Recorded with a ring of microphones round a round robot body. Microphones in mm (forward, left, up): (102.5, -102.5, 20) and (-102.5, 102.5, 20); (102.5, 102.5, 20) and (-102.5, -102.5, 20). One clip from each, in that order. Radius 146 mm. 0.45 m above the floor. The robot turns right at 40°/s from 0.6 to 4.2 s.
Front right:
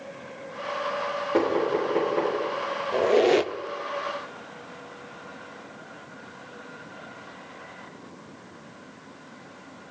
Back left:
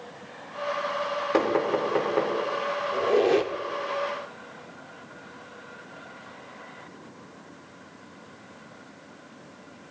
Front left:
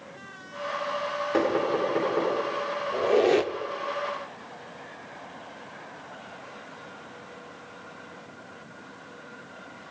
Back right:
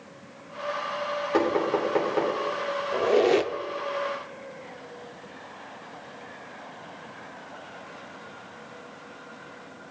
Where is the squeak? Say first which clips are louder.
Front right 2 dB, even; 75° right, 0.5 m; by 3.5 s 50° right, 0.5 m.